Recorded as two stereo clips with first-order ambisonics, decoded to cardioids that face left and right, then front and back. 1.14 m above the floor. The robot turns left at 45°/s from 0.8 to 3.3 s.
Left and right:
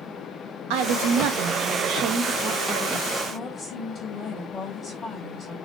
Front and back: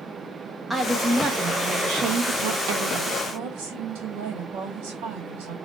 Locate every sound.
0.7 s a woman speaking: 90° right, 1.3 m; by 3.2 s 160° left, 1.3 m
3.3 s a woman speaking: 170° left, 2.5 m; by 5.5 s 165° left, 2.5 m